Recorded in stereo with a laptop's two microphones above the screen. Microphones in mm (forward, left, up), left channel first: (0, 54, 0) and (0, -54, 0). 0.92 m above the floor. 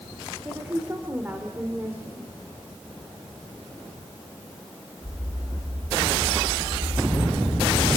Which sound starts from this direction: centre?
A woman speaking, at 0.5 s.